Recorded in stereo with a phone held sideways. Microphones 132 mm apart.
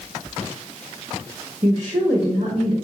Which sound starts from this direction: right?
A woman speaking, at 1.6 s.